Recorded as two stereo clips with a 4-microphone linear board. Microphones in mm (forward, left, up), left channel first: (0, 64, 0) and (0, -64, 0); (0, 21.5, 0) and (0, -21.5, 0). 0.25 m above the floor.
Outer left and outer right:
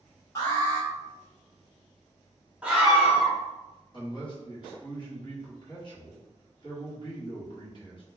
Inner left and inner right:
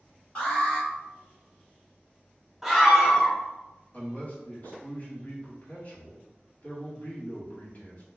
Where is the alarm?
25° left (ahead or behind), 1.7 m.